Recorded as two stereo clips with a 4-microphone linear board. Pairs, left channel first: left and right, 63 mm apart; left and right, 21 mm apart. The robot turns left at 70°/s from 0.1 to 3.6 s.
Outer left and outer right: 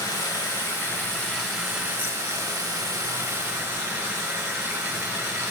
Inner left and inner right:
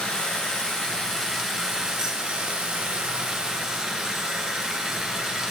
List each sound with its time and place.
0.0 s running water: 100° left, 6 m; by 5.5 s 145° right, 6 m